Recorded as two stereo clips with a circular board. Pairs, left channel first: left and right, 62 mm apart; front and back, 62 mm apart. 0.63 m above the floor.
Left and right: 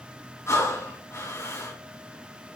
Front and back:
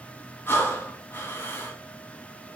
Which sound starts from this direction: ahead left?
Breathing, at 0.5 s.